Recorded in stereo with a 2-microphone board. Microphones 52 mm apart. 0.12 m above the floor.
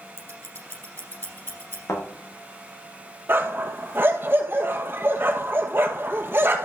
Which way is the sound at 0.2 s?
50° left (ahead or behind).